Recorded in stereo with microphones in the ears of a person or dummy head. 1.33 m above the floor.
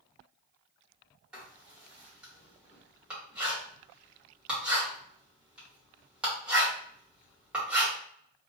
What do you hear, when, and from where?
1.3 s writing: 5° right (ahead or behind), 1.1 m